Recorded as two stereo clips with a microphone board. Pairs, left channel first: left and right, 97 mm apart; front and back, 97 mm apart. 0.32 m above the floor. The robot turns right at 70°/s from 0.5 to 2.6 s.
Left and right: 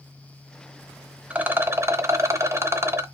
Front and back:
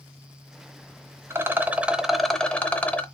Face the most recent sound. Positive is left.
turn(degrees=-60)